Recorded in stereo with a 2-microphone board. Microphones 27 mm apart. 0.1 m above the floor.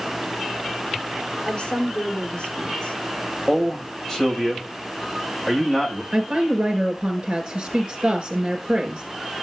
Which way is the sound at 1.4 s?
40° left (ahead or behind).